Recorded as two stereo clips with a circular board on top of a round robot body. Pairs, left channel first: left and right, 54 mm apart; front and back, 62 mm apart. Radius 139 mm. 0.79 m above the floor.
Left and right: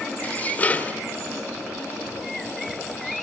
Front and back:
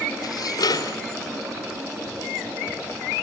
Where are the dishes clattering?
25° left, 1.9 m.